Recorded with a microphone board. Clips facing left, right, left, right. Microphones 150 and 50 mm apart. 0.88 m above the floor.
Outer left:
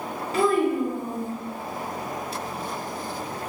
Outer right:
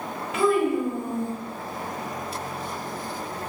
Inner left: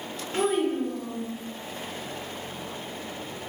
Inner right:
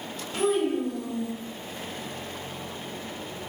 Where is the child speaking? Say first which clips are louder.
Even, even; 40° left (ahead or behind), 0.9 m.